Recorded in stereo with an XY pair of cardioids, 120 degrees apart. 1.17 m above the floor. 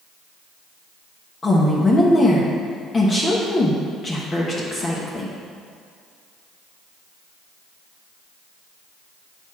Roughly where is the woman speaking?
Ahead left.